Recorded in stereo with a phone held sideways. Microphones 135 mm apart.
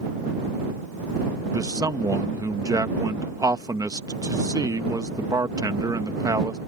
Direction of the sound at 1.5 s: 25° right (ahead or behind).